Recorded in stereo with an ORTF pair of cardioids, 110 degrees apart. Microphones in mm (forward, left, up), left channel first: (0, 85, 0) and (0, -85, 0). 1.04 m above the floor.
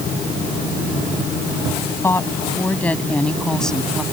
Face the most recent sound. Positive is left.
turn(degrees=0)